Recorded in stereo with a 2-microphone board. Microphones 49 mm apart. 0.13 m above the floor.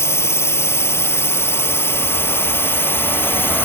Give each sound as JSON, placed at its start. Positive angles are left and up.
{"t": 0.0, "sound": "a drone", "side_deg": 60}